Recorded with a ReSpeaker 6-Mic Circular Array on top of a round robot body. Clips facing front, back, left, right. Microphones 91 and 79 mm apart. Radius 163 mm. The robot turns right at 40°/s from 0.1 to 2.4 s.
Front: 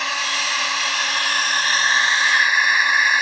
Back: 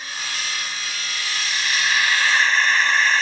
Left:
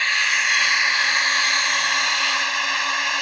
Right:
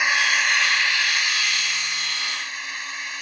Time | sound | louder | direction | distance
0.0 | a drone | front 7 dB, right 1 dB | 10° right | ?